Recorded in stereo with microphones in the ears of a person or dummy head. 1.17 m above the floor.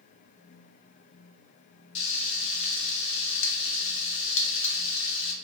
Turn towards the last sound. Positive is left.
turn(degrees=75)  # may be behind; listen again after turning